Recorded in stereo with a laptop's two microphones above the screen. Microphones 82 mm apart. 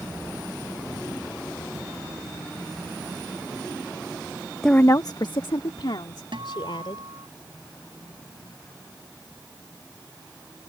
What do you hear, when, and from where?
4.6 s a woman speaking: 5° left (ahead or behind); by 7.1 s 85° left
6.3 s a guitar: 85° right